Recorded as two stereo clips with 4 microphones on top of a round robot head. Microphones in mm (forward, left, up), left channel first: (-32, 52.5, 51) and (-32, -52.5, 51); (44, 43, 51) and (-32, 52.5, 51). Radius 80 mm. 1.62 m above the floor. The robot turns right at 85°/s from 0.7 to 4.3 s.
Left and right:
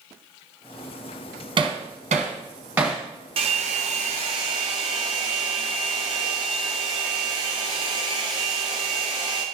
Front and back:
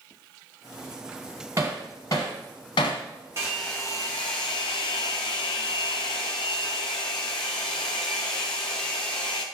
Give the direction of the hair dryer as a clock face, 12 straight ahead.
4 o'clock.